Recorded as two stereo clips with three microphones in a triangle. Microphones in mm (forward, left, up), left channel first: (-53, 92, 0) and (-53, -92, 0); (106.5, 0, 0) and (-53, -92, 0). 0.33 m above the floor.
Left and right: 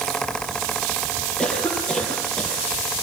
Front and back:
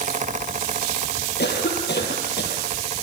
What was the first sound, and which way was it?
A cough, 5° left.